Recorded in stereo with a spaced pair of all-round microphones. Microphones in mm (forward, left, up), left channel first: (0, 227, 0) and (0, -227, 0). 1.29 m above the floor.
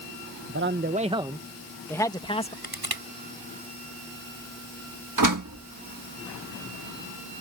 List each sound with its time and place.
0.5 s a man speaking: 30° right (ahead or behind); by 2.5 s 15° left (ahead or behind)
2.6 s crushing: 50° right (ahead or behind)
5.2 s a door slam: 40° right (ahead or behind)